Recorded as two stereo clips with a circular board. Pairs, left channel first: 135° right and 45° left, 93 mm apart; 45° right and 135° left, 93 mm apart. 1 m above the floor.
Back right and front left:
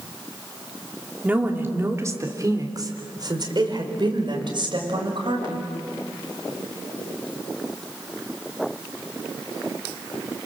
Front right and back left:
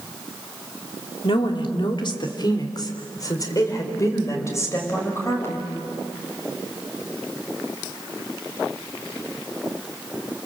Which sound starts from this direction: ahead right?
A woman speaking, at 1.2 s.